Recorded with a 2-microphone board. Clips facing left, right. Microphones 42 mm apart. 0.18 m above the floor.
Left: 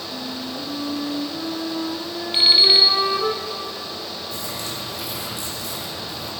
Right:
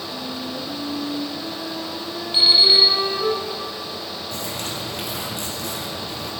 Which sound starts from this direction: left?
An alarm clock, at 2.3 s.